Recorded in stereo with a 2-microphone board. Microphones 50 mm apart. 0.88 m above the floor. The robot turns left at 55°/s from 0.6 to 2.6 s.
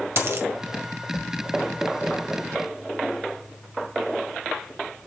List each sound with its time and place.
0.2 s a dropped coin: 65° right (ahead or behind), 1.7 m